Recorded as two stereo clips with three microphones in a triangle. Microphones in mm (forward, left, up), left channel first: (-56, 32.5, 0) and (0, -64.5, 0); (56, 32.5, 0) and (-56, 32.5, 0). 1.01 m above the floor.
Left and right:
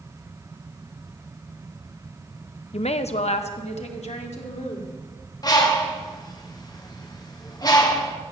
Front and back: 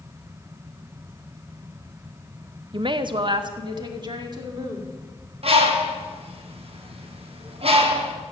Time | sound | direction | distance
2.7 | a woman speaking | 140° left | 0.6 m
5.4 | a bird | 170° left | 1.6 m